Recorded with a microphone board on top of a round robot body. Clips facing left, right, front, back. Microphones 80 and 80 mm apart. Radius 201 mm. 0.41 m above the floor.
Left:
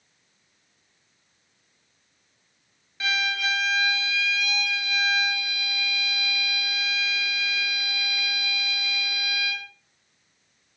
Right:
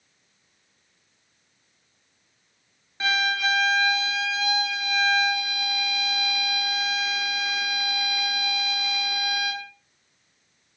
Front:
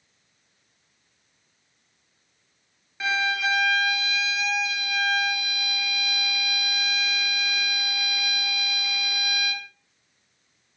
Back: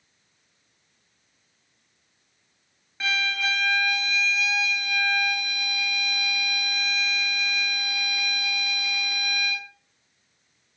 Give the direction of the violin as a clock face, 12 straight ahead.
3 o'clock.